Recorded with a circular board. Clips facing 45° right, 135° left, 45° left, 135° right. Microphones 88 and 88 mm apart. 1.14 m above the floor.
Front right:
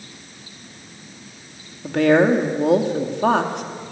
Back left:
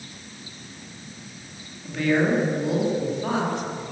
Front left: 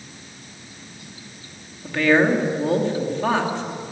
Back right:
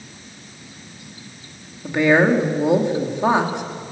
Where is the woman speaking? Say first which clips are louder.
Front right 7 dB, back right 2 dB; 65° right, 2.5 m.